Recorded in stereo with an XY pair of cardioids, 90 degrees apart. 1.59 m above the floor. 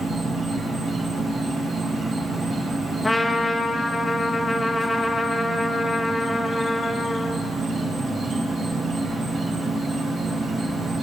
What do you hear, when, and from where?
0.0 s an insect: 60° right, 4 m
3.0 s a trumpet: 15° left, 1.4 m